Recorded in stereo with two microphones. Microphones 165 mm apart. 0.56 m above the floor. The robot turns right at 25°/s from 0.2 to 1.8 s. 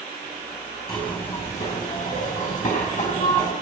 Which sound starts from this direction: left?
A zipper, at 0.9 s.